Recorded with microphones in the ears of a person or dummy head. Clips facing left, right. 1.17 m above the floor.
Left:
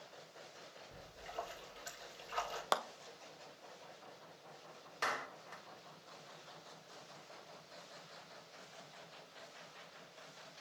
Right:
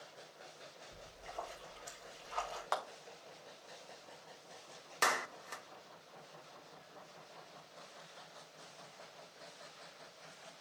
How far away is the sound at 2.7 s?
About 0.6 m.